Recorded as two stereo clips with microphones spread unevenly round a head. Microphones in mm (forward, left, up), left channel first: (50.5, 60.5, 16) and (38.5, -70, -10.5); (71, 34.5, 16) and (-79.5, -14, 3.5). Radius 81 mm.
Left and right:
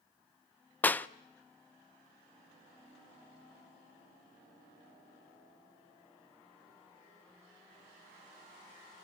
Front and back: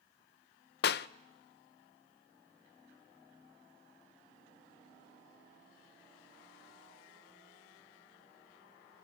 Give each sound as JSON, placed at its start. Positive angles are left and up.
{"t": 0.8, "sound": "a clap", "azimuth_deg": 5, "distance_m": 0.7}